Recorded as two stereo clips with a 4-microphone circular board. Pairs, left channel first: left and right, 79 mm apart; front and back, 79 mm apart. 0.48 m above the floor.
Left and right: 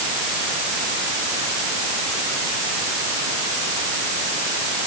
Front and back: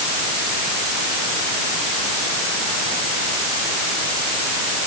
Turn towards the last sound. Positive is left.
No sound to turn to.